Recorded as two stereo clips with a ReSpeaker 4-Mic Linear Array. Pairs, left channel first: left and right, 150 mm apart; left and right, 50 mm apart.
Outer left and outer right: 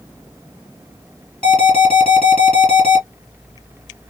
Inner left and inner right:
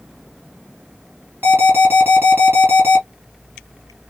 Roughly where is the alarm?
Right.